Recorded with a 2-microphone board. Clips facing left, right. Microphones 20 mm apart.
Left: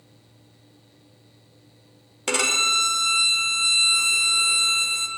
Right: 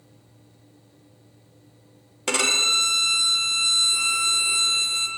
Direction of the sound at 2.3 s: 10° right (ahead or behind).